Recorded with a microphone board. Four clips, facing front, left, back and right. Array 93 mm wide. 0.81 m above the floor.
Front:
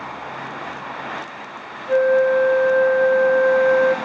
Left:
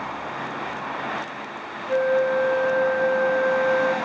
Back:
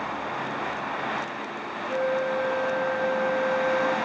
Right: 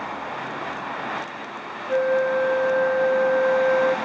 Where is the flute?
Straight ahead, 2.5 m.